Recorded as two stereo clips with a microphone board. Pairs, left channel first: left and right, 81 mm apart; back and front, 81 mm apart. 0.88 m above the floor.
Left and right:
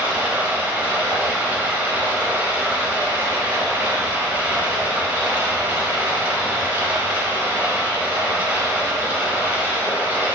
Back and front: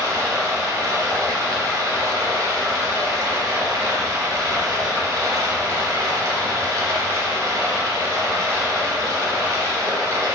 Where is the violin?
No violin in this recording.